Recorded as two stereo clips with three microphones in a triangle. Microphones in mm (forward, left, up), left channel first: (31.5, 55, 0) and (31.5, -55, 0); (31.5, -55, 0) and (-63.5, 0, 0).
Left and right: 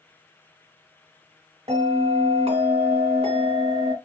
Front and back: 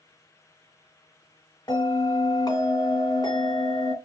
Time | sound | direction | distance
1.7 | a bell | 80° right | 1.7 m